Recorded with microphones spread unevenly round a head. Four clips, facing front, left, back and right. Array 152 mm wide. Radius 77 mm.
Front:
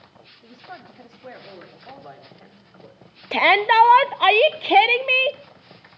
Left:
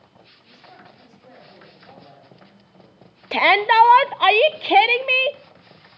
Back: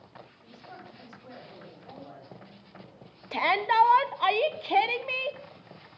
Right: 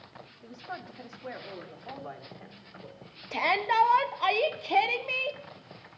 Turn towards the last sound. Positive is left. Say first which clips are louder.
# left 10 dB, front 8 dB
turn(degrees=35)